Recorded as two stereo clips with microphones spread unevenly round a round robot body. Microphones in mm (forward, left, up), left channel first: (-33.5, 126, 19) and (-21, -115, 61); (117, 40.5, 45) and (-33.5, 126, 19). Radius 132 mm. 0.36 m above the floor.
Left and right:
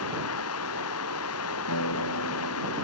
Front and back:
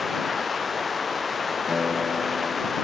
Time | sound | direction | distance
0.0 | running water | 60° left | ?
1.7 | a guitar | 65° left | ?